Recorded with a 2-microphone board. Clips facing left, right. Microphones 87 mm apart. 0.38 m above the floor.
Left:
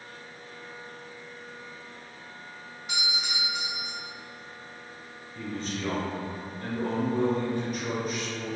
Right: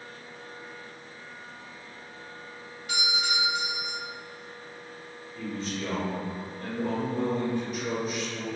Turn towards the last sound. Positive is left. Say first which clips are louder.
# even
turn(degrees=50)  # may be behind; listen again after turning